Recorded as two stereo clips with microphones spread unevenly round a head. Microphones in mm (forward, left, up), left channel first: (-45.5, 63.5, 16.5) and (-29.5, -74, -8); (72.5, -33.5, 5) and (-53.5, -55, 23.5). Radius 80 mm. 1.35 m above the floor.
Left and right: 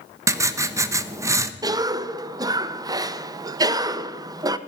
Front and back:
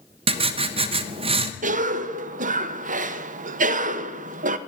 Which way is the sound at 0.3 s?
155° right.